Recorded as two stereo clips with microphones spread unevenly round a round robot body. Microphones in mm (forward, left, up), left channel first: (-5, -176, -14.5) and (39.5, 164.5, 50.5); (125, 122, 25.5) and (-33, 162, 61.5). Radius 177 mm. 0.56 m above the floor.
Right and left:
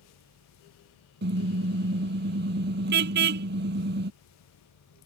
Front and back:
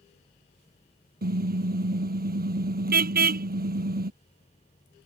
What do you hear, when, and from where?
1.2 s a car horn: 145° left